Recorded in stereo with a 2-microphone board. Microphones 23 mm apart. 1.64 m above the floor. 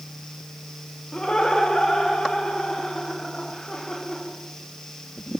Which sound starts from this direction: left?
Laughter, at 1.1 s.